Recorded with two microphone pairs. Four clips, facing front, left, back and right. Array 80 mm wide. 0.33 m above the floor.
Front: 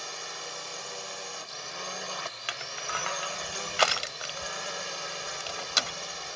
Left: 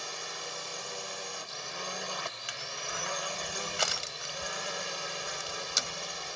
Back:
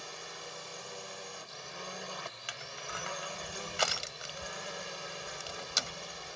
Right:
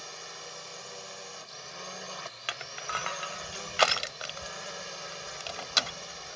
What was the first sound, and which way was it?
A drone, 30° left.